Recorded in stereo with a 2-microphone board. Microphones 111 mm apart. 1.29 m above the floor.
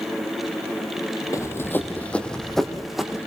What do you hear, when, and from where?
1.3 s running footsteps: 30° left (ahead or behind), 2 m; by 3.2 s 5° right (ahead or behind), 3.5 m